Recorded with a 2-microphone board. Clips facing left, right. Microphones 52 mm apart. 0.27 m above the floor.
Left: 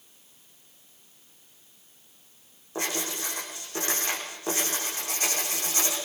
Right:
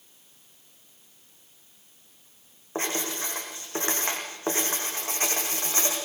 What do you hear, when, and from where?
2.8 s writing: 30° right (ahead or behind), 7.5 m